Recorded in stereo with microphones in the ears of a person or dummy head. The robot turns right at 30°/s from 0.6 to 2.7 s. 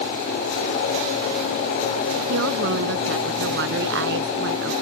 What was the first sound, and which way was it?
A woman speaking, 70° right (ahead or behind).